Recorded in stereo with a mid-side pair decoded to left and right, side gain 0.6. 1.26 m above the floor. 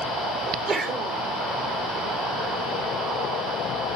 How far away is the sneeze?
About 2 m.